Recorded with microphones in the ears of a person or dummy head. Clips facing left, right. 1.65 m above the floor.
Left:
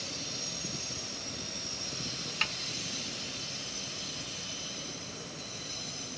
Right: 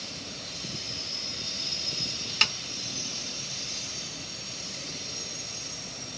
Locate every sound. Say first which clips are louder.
2.4 s a snare drum: right 4 dB; 60° right (ahead or behind)